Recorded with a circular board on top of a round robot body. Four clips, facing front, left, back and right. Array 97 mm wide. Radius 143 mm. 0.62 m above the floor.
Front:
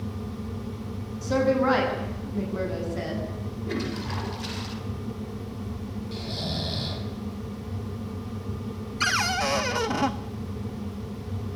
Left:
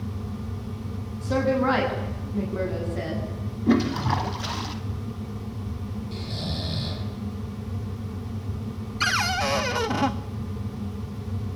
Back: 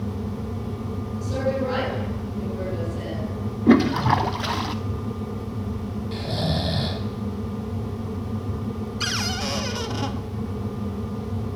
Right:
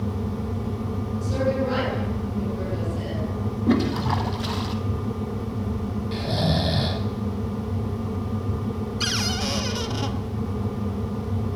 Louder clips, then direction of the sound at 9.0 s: Left 7 dB, front 6 dB; 55° left.